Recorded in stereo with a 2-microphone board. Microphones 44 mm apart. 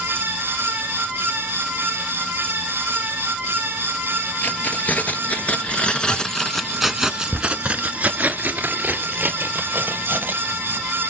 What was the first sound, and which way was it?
Keys jangling, 45° left (ahead or behind).